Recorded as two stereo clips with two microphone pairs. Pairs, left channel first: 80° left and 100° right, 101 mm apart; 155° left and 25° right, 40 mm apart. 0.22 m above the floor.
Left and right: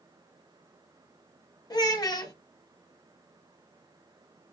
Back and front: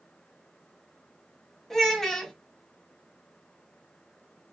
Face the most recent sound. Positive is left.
turn(degrees=80)